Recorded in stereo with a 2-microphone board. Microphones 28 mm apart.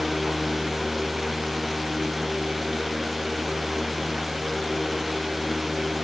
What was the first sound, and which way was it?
Only background noise.